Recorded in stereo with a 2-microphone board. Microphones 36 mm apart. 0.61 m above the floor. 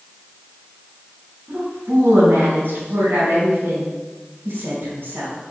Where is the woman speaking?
80° right, 5 m.